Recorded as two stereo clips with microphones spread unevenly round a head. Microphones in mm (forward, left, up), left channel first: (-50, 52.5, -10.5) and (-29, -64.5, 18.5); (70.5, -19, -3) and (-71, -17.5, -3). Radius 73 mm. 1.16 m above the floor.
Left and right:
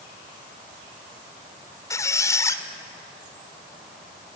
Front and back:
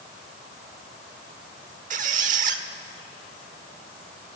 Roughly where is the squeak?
Behind.